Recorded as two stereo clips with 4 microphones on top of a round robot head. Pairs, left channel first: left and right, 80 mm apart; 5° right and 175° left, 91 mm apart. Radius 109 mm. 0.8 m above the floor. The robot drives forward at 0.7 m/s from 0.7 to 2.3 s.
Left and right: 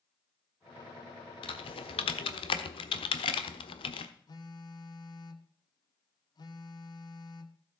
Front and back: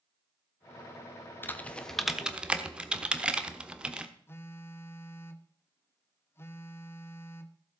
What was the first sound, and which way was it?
Typing on a keyboard, 65° left.